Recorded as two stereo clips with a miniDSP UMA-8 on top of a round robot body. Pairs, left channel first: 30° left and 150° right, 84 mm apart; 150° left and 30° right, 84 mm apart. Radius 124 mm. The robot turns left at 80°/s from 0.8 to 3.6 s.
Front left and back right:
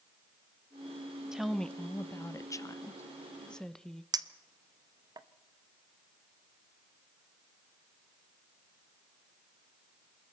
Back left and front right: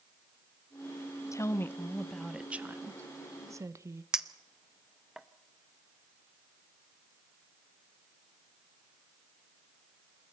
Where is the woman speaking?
135° left, 1.0 m; by 4.0 s 50° right, 1.0 m.